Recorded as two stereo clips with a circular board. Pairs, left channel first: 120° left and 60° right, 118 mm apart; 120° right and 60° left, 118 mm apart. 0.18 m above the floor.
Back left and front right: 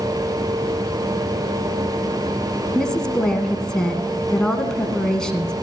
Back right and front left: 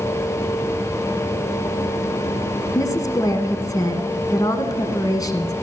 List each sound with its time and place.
2.8 s a woman speaking: 160° right, 1.6 m